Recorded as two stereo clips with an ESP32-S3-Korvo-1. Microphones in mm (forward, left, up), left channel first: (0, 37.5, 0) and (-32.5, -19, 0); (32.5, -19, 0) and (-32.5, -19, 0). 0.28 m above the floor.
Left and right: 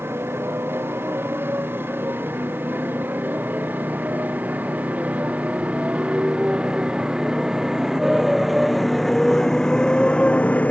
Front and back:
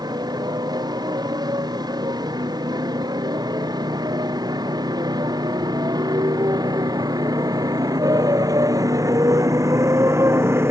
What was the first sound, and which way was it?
A motorcycle, 175° right.